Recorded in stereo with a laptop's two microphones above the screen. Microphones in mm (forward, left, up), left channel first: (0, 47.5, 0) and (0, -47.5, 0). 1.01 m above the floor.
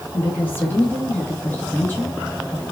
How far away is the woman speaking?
About 2 m.